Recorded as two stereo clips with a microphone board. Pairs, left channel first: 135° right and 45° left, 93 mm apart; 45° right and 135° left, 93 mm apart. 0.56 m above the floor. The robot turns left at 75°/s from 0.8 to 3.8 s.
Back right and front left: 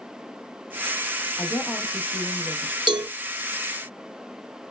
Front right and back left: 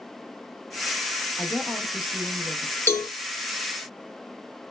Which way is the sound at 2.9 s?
20° left.